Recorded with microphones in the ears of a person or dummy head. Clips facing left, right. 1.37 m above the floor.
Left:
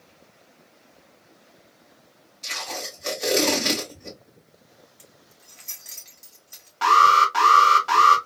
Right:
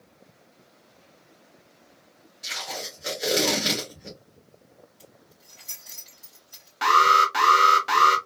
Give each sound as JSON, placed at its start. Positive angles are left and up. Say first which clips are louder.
{"t": 2.4, "sound": "tape being pulled", "louder": "left 2 dB", "side_deg": -5, "distance_m": 1.7}
{"t": 5.0, "sound": "keys jangling", "louder": "right 1 dB", "side_deg": 25, "distance_m": 1.9}
{"t": 6.8, "sound": "an alarm", "louder": "left 2 dB", "side_deg": -20, "distance_m": 0.9}